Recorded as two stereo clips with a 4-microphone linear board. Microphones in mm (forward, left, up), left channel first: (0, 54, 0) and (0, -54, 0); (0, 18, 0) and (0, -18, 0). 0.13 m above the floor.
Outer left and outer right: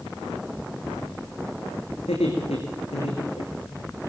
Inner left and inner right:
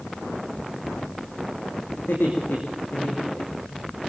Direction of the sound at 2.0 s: 80° left.